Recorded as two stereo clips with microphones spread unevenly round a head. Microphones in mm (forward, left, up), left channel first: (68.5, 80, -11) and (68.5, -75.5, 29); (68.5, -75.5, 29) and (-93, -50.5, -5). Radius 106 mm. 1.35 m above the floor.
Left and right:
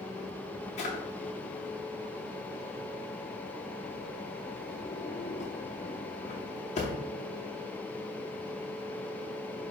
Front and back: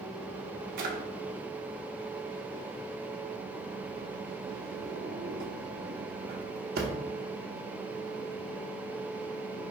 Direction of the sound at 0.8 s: 150° left.